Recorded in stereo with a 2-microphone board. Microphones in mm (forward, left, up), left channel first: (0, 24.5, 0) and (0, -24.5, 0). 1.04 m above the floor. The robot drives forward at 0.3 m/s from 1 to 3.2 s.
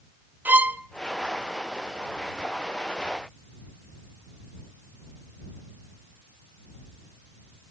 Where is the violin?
35° right (ahead or behind), 0.7 m.